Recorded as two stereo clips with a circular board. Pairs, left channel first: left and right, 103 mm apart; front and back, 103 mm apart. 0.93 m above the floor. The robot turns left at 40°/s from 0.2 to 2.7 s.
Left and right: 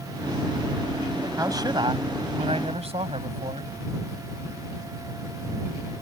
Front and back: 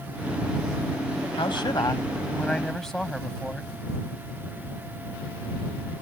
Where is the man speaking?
30° right; by 3.7 s 85° right.